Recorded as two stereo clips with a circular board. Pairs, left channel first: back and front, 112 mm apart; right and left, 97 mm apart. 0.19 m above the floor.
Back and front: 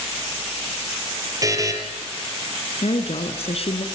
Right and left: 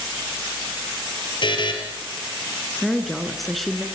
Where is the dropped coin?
I don't hear a dropped coin.